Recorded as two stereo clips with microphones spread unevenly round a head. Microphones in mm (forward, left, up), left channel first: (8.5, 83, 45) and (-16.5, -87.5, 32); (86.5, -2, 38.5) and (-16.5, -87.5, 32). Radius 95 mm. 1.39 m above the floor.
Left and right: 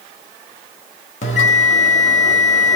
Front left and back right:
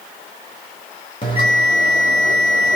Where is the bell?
70° left, 0.9 m.